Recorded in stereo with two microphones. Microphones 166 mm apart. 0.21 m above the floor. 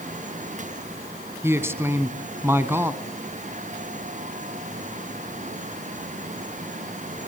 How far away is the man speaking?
About 1.4 m.